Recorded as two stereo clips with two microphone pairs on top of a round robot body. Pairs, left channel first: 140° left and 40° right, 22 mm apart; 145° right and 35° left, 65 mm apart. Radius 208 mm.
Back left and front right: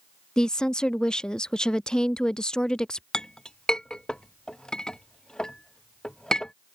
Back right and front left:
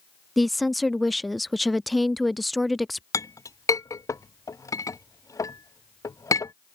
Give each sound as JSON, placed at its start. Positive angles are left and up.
{"t": 0.4, "sound": "a woman speaking", "azimuth_deg": 130}
{"t": 3.1, "sound": "a clink", "azimuth_deg": -160}